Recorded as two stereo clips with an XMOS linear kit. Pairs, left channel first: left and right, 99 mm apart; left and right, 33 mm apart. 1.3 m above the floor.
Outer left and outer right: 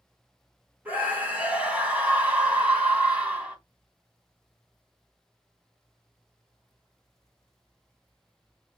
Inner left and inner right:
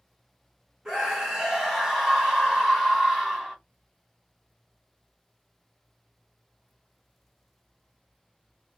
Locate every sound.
0.8 s a scream: 15° right (ahead or behind), 1.9 m